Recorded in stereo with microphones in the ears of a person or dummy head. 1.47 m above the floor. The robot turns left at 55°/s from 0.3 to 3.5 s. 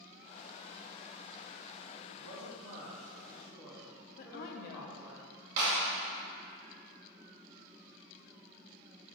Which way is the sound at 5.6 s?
60° right (ahead or behind).